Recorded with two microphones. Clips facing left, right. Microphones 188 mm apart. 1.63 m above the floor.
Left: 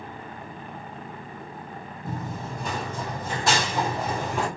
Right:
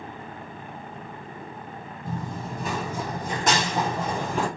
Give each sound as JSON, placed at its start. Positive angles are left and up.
{"t": 2.0, "sound": "running footsteps", "side_deg": 10, "distance_m": 1.7}